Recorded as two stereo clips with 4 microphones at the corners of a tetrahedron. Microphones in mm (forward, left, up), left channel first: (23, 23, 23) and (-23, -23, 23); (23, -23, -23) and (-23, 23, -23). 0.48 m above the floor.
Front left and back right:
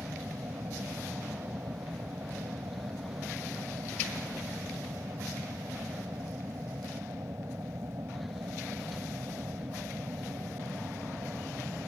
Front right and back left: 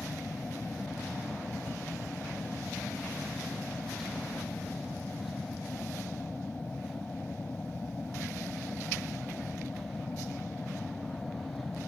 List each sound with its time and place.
0.0 s an aircraft: 110° right